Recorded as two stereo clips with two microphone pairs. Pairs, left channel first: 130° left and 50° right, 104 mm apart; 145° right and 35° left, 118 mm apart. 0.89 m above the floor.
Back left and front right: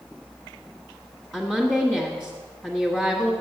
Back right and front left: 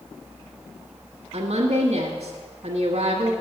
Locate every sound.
1.3 s a woman speaking: 40° left, 1.3 m